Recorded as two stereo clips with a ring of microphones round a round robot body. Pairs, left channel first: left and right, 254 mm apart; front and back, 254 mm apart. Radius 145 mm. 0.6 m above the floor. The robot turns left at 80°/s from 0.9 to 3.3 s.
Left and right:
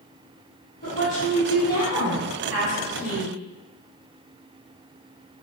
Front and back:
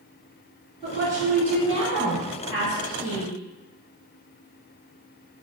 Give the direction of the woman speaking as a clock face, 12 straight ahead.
8 o'clock.